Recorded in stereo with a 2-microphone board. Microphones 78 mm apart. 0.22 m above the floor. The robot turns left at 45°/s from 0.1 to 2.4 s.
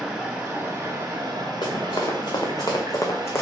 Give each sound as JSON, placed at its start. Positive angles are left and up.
{"t": 0.0, "sound": "running water", "azimuth_deg": -10, "distance_m": 1.5}
{"t": 1.6, "sound": "running footsteps", "side_deg": 75, "distance_m": 1.5}